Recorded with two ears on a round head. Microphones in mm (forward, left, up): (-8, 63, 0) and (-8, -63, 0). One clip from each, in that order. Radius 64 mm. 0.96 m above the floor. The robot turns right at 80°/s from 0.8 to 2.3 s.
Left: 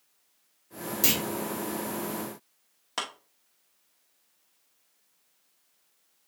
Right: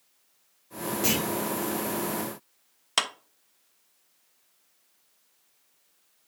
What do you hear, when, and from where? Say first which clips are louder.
1.0 s a clunk: even; 85° left, 2.5 m; by 1.2 s 80° left, 2.5 m
3.0 s a clap: right 7 dB; 65° right (ahead or behind), 1.1 m